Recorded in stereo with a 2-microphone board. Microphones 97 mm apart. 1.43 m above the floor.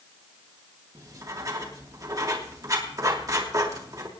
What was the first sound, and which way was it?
Writing, 35° right (ahead or behind).